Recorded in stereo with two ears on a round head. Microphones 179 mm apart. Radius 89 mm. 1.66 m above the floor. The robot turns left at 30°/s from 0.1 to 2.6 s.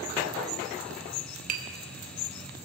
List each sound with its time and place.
1.5 s tapping: 45° right (ahead or behind), 2.5 m; by 1.6 s 40° right (ahead or behind), 2.5 m